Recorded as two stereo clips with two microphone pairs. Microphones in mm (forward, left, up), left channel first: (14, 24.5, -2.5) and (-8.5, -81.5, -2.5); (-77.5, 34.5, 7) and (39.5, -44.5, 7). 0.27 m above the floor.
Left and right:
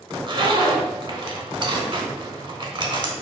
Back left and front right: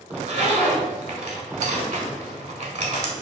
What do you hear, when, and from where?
0.1 s a zipper: 60° right, 0.7 m